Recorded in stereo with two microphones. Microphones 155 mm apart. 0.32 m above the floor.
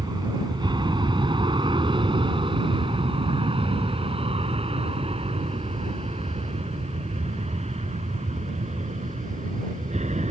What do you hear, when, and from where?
0.0 s an aircraft: 30° right (ahead or behind); by 10.3 s 45° right (ahead or behind)